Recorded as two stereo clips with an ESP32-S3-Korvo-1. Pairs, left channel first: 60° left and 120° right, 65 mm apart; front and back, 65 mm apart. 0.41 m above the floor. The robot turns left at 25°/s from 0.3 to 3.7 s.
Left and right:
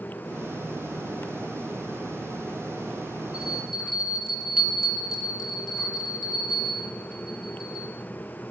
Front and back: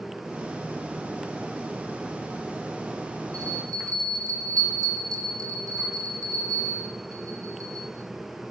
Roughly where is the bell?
Behind.